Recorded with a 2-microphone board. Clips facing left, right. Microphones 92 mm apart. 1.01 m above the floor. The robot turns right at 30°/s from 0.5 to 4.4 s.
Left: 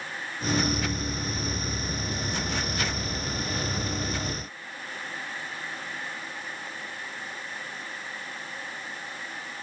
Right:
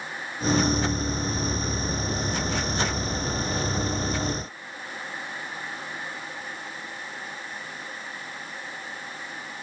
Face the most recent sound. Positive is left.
No sound to turn to.